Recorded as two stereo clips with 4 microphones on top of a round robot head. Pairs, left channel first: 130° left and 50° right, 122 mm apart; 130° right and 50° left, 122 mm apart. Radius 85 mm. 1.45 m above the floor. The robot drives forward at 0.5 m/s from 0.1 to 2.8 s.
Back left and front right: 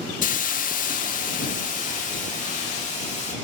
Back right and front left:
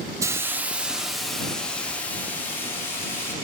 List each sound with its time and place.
0.2 s a hiss: 120° left, 0.8 m; by 3.3 s 155° left, 1.8 m